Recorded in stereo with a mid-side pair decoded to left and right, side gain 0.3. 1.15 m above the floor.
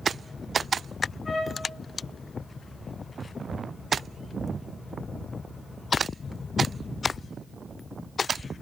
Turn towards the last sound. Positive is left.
turn(degrees=60)